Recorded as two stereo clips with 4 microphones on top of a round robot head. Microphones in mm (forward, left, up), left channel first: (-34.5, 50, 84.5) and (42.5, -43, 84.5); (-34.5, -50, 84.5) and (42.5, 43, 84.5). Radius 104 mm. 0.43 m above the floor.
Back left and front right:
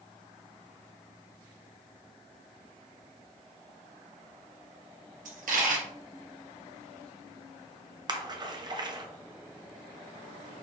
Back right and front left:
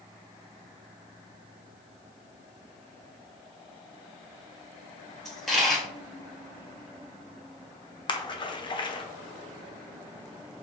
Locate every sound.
5.2 s a dropped coin: 40° right, 1.4 m
8.1 s a splash: 95° right, 0.9 m